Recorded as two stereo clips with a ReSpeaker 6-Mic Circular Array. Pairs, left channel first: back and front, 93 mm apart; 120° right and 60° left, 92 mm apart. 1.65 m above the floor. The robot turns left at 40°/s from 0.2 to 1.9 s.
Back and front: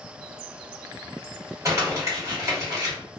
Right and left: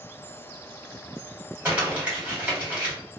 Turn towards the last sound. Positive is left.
turn(degrees=-5)